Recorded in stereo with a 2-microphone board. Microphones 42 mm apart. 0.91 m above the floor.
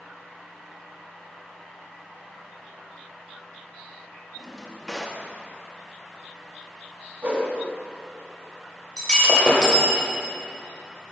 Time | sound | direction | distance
4.4 | a drawer | centre (ahead or behind) | 0.8 m
7.2 | a whoosh | 45° right (ahead or behind) | 1.4 m
9.0 | breaking glass | 15° left (ahead or behind) | 2 m